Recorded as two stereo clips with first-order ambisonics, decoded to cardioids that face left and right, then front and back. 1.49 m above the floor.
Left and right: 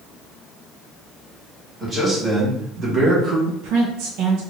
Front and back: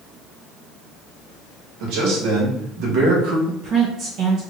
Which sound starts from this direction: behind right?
A woman speaking, at 3.5 s.